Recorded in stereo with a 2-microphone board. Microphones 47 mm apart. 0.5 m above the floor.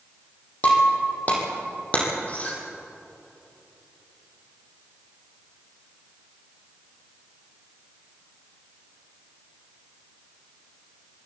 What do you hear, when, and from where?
0.6 s breaking glass: 30° left (ahead or behind), 5 m